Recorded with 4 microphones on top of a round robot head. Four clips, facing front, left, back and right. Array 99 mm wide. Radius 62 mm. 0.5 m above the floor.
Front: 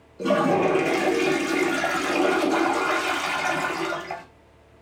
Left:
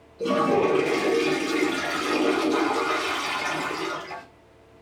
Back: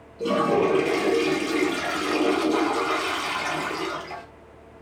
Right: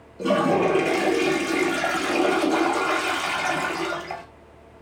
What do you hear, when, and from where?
0.2 s a toilet flushing: 45° right, 0.5 m